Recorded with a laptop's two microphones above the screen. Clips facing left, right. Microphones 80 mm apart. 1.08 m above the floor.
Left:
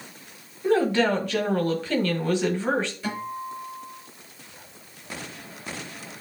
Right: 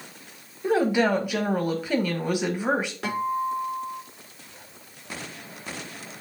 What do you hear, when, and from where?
0.6 s a woman speaking: 15° right (ahead or behind), 1.4 m
3.0 s a guitar: 80° right, 4 m